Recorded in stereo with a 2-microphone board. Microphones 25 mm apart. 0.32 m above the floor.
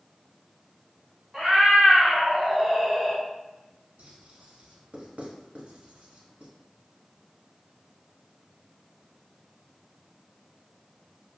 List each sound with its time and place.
1.3 s a cat meowing: 15° right (ahead or behind), 1.6 m; by 3.2 s 5° left (ahead or behind), 0.6 m
4.0 s writing: 60° right (ahead or behind), 0.8 m